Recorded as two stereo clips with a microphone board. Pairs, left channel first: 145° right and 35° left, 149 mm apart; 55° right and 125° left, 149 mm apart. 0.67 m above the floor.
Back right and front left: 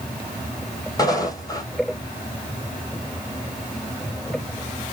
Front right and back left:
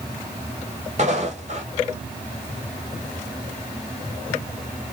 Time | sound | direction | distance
1.0 | footsteps | 155° left | 1.2 m